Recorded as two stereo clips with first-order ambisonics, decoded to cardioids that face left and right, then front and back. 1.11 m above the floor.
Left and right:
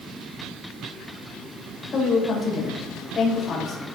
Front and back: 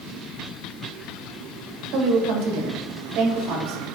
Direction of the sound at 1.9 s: 155° left.